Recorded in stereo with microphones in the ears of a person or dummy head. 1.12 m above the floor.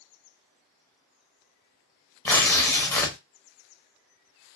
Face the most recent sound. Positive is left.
turn(degrees=15)  # may be behind; listen again after turning